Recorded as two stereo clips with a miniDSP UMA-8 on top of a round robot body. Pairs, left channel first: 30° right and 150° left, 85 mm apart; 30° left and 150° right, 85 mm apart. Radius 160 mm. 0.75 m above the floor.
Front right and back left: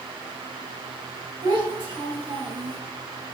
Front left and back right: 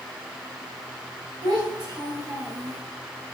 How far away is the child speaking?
About 3 m.